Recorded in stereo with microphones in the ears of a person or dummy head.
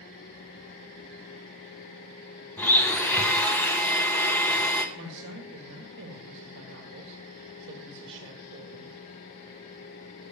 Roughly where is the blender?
Centre.